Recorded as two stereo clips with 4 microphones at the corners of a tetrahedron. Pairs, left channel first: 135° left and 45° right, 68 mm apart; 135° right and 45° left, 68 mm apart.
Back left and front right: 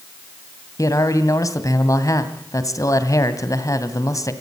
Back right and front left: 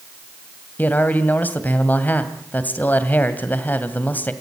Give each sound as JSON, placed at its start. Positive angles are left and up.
{"t": 0.8, "sound": "a man speaking", "azimuth_deg": 165, "distance_m": 2.0}